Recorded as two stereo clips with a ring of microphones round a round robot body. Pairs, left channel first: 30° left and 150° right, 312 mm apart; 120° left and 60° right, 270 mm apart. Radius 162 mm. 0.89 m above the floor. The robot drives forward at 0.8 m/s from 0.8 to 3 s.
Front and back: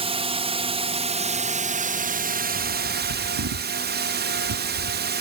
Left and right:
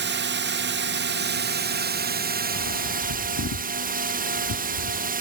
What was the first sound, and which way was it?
A drone, 85° right.